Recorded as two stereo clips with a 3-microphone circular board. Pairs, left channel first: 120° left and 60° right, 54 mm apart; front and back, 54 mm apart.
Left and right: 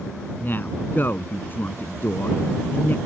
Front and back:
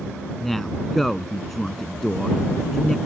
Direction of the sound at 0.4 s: 85° left.